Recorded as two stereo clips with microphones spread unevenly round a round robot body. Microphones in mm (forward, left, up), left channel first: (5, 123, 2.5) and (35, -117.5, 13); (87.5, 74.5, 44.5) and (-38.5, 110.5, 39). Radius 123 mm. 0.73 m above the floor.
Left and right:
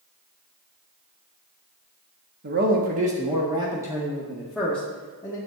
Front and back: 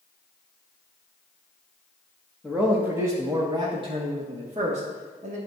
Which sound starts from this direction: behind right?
A man speaking, at 2.4 s.